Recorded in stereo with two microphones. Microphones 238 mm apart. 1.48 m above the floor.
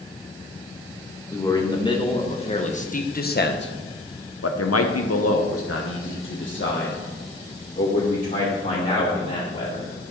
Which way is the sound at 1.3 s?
15° left (ahead or behind).